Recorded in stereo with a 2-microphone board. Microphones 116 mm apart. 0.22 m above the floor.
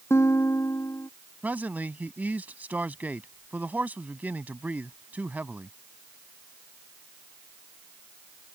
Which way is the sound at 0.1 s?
20° left (ahead or behind).